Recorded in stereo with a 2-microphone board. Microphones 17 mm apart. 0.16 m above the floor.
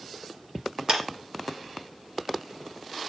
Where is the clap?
45° right (ahead or behind), 3 m.